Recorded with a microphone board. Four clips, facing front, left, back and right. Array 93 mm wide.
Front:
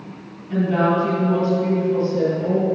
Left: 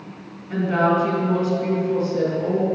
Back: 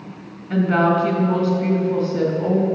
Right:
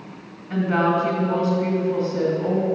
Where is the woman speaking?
145° right, 1.9 m.